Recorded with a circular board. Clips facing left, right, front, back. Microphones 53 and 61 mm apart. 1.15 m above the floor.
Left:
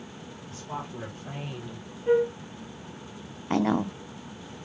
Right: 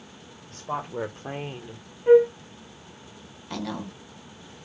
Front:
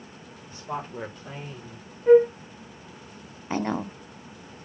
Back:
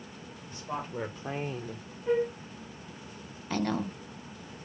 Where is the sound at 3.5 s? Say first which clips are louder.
Left 8 dB, front 3 dB; 55° left, 0.6 m.